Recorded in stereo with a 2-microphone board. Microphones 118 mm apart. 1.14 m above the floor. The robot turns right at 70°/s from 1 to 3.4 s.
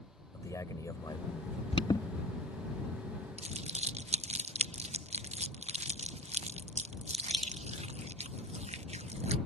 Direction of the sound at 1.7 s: 50° left (ahead or behind).